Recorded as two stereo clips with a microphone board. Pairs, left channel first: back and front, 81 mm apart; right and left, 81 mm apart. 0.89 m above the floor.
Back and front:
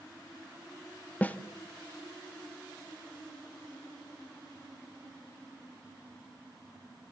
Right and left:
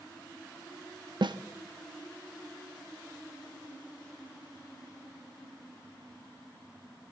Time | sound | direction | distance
1.2 | a snare drum | 110° left | 0.8 m